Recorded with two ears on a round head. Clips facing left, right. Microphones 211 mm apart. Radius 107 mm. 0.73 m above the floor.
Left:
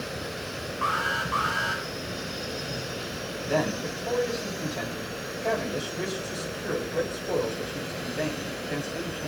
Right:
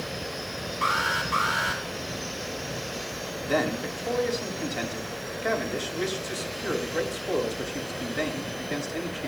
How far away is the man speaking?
About 5.5 m.